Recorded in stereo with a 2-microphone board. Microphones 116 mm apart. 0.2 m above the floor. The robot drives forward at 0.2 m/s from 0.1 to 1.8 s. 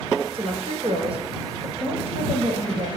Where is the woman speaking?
55° right (ahead or behind), 3 m; by 2.9 s 50° right (ahead or behind), 3 m.